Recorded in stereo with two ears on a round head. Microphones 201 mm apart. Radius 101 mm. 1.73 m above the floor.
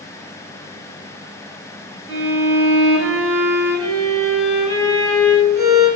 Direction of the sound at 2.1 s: 15° right (ahead or behind).